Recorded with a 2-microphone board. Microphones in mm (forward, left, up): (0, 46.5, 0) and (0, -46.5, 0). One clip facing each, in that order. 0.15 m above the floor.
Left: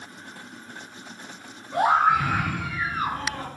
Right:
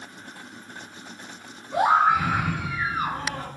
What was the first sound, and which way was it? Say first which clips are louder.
A scream: even; 5° right (ahead or behind).